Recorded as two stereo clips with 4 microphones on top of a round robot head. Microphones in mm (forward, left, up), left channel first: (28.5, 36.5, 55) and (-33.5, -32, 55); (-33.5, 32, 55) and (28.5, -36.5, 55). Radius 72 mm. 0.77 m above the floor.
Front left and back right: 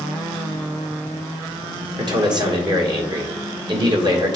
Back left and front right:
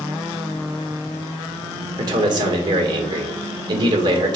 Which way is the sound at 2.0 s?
90° right.